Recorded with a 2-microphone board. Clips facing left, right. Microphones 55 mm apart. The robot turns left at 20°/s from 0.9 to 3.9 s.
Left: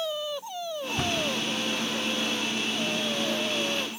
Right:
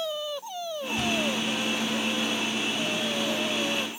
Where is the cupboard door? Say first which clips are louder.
Right 1 dB; 45° left (ahead or behind), 4 m; by 1.3 s 35° left (ahead or behind), 4 m.